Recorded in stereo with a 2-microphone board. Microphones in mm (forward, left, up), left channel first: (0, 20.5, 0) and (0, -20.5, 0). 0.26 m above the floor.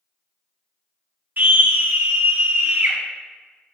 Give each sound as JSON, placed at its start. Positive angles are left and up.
{"t": 1.4, "sound": "a scream", "side_deg": -50, "distance_m": 1.7}